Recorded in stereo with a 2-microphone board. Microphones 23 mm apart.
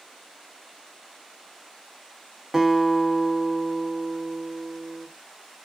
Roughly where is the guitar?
Centre.